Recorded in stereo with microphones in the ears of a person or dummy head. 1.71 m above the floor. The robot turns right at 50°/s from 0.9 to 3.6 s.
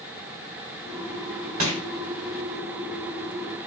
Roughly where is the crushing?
Right.